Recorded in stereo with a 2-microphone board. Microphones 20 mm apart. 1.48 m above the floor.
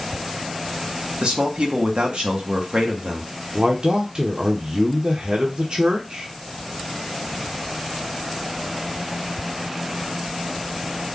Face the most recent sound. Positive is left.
turn(degrees=-45)  # may be behind; listen again after turning